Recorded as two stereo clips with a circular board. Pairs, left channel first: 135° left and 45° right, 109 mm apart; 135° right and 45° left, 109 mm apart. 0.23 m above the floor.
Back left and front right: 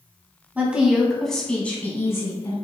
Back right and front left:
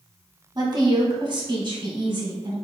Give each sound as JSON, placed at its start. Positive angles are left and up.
{"t": 0.6, "sound": "a woman speaking", "azimuth_deg": 25, "distance_m": 1.3}